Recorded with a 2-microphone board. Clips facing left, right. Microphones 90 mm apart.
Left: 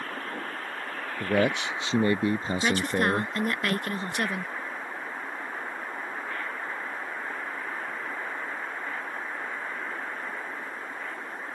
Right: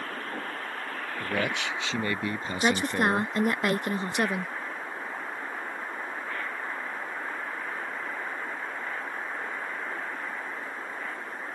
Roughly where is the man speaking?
Left.